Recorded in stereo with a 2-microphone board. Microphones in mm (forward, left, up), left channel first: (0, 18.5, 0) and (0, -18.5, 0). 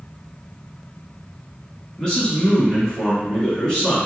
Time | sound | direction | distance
2.0 | a man speaking | 20° left (ahead or behind) | 1.4 m